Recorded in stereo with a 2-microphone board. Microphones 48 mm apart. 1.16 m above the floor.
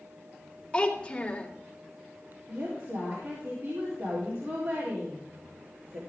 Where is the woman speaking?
65° right (ahead or behind), 4 m.